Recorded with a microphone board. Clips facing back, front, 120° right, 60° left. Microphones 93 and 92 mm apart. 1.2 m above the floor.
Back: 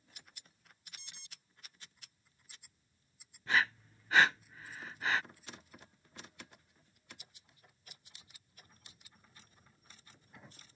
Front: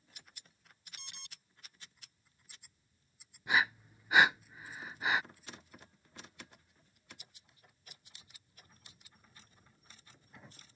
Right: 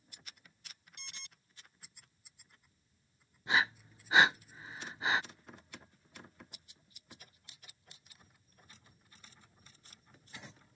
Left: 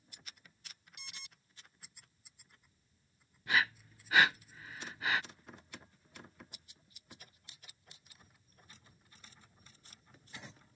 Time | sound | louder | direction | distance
1.0 | an alarm | front 5 dB, even | 25° right | ?
3.5 | breathing | front 1 dB, right 1 dB | 65° right | ?